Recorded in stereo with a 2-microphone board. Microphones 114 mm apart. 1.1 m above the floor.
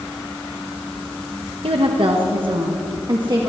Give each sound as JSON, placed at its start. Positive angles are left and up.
{"t": 1.6, "sound": "a woman speaking", "side_deg": -55, "distance_m": 1.0}